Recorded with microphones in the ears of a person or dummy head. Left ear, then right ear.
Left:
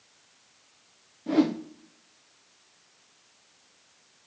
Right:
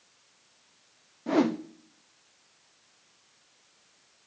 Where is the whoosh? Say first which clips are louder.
Left 1 dB; 30° right (ahead or behind), 0.7 m.